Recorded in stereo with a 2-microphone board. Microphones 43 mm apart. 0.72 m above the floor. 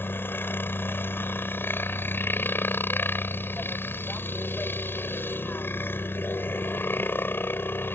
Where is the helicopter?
55° left (ahead or behind).